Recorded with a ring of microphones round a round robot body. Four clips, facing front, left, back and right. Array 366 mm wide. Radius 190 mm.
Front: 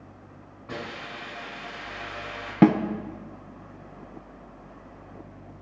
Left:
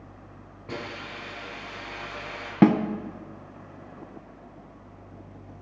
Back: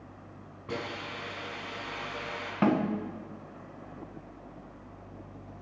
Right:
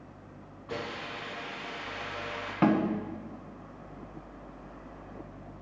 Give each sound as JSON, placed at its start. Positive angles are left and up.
{"t": 0.7, "sound": "a hiss", "azimuth_deg": 130, "distance_m": 5.0}
{"t": 2.6, "sound": "a snare drum", "azimuth_deg": 45, "distance_m": 0.6}